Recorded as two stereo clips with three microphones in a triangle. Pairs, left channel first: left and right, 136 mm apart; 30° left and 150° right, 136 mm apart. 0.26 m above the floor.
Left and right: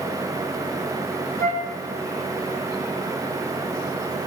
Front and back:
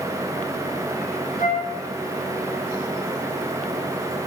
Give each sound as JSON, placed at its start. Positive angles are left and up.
{"t": 1.4, "sound": "a flute", "azimuth_deg": 25, "distance_m": 1.3}